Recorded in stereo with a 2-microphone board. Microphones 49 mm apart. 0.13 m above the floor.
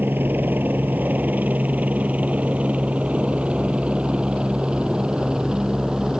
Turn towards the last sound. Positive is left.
turn(degrees=-15)  # may be behind; listen again after turning